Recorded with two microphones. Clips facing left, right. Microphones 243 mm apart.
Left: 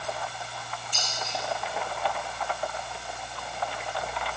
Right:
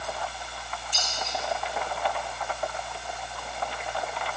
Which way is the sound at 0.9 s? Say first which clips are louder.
Right 2 dB; 55° left (ahead or behind).